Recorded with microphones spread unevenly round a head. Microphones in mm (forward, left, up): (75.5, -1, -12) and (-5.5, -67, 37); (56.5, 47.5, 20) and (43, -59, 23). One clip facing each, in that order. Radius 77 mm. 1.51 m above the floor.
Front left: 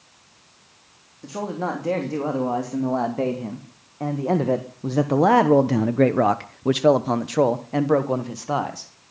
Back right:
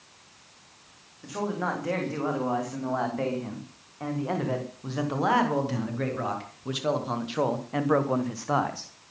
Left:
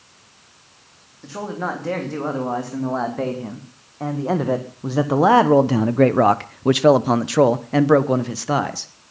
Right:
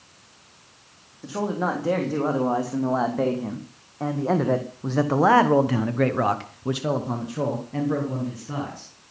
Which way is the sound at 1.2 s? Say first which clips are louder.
Front left 3 dB, right 1 dB; 20° right.